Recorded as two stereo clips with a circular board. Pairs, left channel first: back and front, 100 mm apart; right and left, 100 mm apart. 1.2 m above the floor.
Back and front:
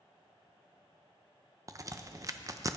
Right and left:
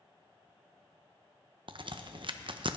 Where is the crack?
55° left, 0.7 m.